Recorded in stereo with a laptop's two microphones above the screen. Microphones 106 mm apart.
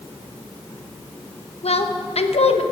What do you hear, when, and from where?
1.6 s a woman speaking: 75° left (ahead or behind), 0.8 m